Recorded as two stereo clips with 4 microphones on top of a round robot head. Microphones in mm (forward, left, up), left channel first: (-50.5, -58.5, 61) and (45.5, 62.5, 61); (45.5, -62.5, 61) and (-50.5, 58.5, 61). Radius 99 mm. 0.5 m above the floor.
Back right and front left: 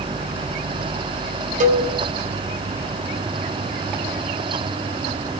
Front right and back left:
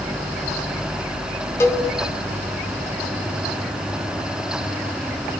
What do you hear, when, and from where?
1.6 s a cowbell: 20° left, 4.5 m